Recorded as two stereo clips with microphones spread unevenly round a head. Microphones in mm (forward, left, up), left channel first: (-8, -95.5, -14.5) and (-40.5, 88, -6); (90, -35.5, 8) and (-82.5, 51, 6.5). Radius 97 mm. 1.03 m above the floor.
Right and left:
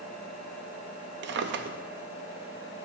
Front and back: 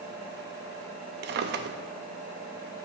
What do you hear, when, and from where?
1.2 s a drawer: 120° left, 0.6 m